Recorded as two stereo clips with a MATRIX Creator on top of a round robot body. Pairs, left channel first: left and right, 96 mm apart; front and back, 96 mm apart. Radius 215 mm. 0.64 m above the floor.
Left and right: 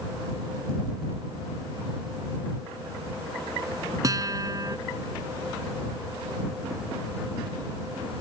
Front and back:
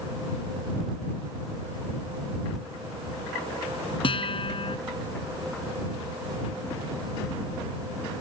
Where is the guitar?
35° right.